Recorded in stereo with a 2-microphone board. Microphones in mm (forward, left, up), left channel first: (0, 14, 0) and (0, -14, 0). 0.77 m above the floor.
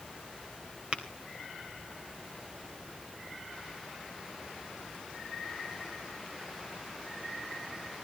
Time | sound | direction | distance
0.9 | tapping | 35° right (ahead or behind) | 3.5 m